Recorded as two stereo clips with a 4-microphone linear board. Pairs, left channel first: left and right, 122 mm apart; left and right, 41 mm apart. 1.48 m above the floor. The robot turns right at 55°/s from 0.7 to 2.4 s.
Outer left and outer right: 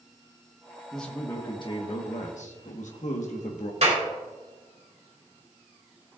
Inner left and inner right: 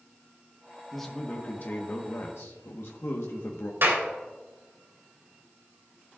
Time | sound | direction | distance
0.9 | a man speaking | straight ahead | 1.3 m
3.8 | a clap | 60° right (ahead or behind) | 3 m